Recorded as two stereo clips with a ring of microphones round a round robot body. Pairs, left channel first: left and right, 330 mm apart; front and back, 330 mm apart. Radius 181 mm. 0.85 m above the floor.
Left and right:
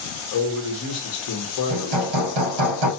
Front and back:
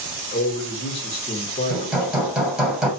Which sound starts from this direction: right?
Hammering, at 1.7 s.